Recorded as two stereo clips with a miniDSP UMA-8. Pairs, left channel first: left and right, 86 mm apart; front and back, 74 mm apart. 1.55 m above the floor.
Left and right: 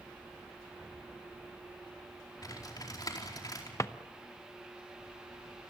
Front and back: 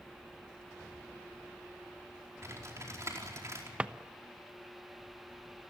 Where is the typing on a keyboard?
130° left, 4.5 m.